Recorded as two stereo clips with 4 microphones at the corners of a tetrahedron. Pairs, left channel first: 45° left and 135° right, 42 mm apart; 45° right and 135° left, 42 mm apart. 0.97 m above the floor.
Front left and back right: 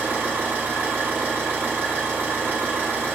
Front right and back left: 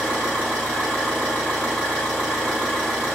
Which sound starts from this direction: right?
An engine running, at 0.0 s.